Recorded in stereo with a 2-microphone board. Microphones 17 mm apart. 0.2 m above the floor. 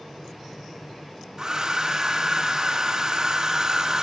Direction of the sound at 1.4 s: 25° right (ahead or behind).